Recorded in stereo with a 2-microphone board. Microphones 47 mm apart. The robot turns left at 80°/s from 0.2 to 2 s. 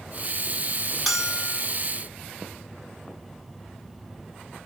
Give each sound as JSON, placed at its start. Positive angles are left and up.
{"t": 1.1, "sound": "a bell", "azimuth_deg": 0, "distance_m": 0.6}